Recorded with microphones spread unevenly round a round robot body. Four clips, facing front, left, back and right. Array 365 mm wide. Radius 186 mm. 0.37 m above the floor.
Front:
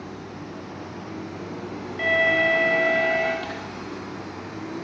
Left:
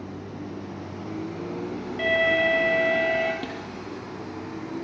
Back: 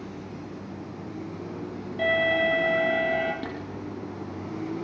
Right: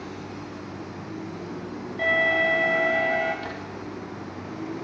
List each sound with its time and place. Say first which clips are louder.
2.0 s an alarm: left 1 dB, front 2 dB; 140° left, 5.5 m
3.4 s a snare drum: left 1 dB, front 1 dB; 125° left, 5 m